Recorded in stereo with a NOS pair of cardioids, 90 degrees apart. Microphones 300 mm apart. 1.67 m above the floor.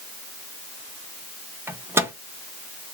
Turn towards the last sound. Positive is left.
turn(degrees=-10)